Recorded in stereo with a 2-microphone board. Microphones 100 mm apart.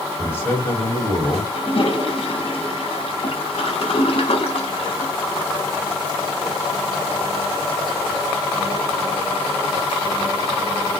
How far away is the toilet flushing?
About 0.5 m.